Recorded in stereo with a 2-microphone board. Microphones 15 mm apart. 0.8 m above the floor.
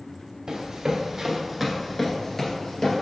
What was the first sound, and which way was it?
Running footsteps, 45° right (ahead or behind).